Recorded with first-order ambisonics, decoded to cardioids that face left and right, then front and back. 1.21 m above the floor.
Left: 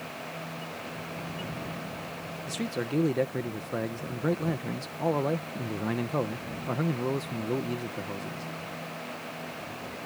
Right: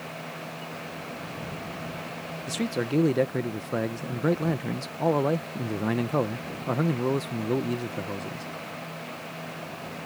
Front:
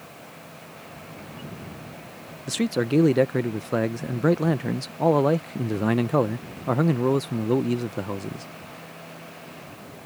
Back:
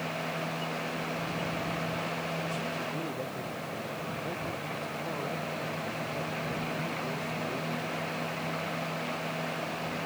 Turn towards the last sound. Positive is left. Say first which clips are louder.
# right 4 dB, front 8 dB
turn(degrees=-10)